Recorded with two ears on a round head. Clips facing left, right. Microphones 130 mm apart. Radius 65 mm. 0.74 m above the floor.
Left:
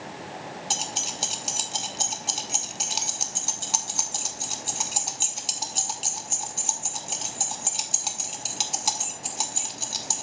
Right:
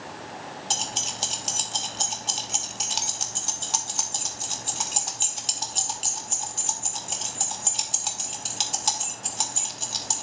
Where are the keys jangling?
5° left (ahead or behind), 0.8 m.